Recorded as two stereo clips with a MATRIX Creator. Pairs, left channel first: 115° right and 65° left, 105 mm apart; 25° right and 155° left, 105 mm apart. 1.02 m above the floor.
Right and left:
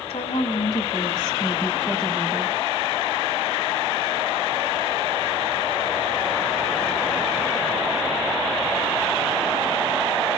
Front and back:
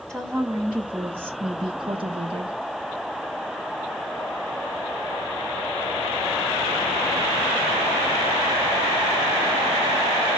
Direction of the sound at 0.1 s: 110° right.